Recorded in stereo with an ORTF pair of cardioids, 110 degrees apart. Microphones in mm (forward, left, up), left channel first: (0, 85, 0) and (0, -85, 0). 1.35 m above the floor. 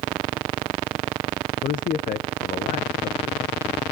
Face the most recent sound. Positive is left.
turn(degrees=50)